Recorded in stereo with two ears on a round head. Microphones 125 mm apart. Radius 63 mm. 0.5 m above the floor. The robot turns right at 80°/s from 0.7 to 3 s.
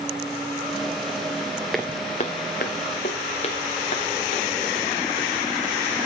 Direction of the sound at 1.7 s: Centre (ahead or behind).